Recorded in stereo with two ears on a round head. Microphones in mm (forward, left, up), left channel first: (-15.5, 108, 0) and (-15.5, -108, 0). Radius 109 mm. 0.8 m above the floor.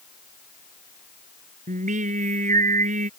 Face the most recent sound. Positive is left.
turn(degrees=-35)  # may be behind; listen again after turning